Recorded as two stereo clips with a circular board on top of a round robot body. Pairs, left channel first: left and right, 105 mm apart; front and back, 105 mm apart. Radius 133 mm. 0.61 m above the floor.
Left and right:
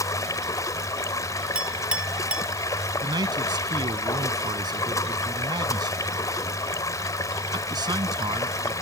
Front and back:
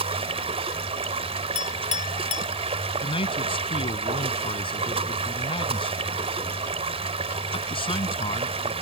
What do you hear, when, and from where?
0.0 s running water: 150° left
1.6 s a clink: 10° right
3.0 s a man speaking: 40° right